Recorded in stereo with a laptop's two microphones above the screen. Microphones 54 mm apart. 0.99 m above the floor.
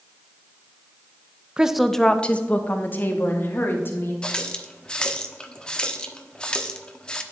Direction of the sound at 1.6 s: 15° right (ahead or behind).